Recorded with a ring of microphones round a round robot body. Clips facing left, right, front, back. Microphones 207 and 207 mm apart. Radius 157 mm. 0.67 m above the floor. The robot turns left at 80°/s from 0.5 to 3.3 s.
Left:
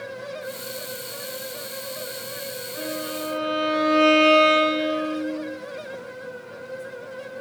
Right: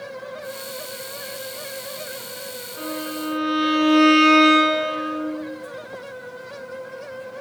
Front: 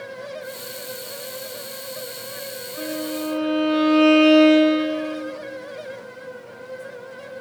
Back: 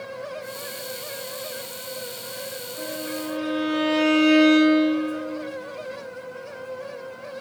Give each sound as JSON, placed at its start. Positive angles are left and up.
{"t": 2.8, "sound": "a violin", "azimuth_deg": 15, "distance_m": 2.0}